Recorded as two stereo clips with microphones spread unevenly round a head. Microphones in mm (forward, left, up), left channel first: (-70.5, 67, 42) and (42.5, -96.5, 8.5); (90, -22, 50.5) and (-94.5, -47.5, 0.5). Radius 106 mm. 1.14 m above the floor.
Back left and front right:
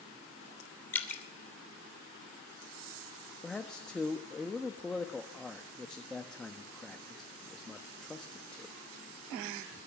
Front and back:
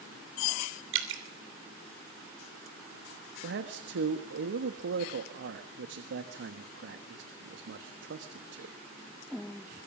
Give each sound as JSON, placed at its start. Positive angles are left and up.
{"t": 0.9, "sound": "dripping", "azimuth_deg": -155, "distance_m": 3.0}
{"t": 3.4, "sound": "a man speaking", "azimuth_deg": -150, "distance_m": 1.3}